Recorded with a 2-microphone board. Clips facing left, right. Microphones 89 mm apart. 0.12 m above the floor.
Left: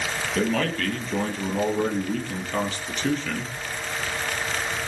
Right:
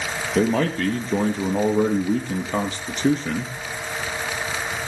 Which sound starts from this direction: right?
A man speaking, at 0.3 s.